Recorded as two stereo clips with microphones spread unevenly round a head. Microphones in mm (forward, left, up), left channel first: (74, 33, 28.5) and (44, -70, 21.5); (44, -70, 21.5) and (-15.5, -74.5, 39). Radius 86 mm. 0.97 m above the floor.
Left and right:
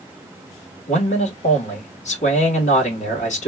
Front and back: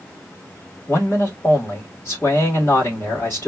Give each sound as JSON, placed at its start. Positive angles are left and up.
{"t": 0.9, "sound": "a man speaking", "azimuth_deg": 70, "distance_m": 3.0}